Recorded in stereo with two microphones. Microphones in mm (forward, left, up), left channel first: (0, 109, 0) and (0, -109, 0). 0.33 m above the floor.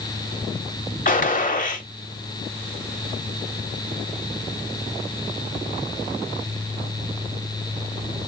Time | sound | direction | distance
1.1 | a gunshot | 35° left (ahead or behind) | 0.9 m